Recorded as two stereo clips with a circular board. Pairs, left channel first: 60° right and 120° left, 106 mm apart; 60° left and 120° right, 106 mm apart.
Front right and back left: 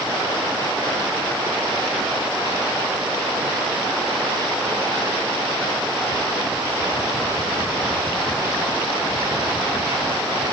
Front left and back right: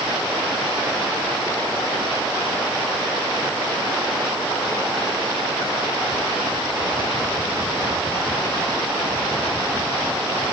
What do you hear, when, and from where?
Only background noise.